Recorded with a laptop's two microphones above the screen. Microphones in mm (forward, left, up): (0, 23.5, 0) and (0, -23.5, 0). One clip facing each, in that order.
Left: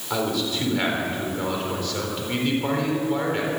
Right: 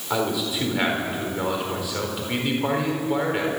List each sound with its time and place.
0.1 s a man speaking: 10° right (ahead or behind), 4 m